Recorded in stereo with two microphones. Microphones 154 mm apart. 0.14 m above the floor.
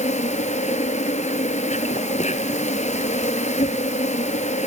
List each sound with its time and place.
0.0 s an insect: 50° left (ahead or behind), 1.5 m